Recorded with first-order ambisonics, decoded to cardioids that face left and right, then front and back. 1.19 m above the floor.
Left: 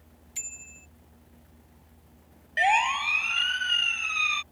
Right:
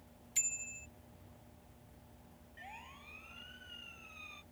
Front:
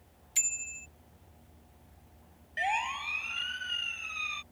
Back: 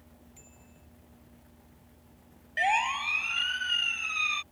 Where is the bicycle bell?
5° right.